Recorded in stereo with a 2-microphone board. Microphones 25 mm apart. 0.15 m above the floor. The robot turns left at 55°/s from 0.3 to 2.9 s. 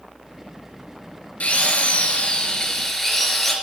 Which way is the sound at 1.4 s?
95° left.